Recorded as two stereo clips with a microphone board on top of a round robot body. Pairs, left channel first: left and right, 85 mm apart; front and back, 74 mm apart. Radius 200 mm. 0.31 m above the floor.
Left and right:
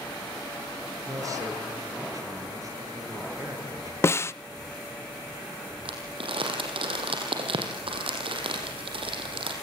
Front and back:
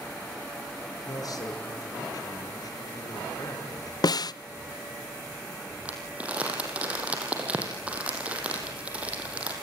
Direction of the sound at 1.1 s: 40° right.